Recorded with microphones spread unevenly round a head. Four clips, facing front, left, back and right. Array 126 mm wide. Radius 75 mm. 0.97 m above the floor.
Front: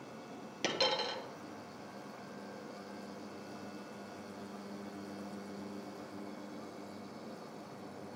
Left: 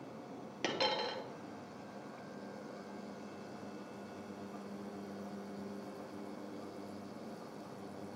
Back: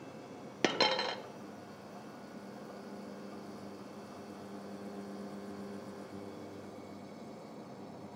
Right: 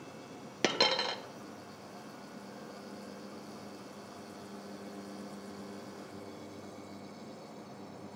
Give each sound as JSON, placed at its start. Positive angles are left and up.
{"t": 0.6, "sound": "a dropped coin", "azimuth_deg": -95, "distance_m": 0.9}